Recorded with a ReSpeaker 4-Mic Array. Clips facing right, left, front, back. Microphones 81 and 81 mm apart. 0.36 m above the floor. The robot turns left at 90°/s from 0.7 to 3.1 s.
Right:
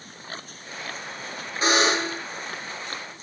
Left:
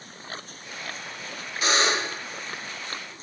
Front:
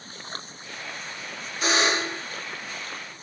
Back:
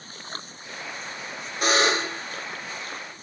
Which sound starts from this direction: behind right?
A buzzer, at 1.6 s.